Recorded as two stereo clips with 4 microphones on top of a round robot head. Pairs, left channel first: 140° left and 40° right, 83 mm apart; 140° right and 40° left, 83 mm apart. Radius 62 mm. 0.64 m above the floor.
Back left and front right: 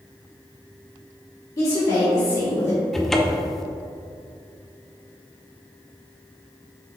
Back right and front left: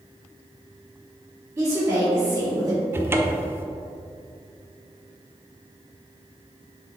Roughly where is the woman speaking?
Left.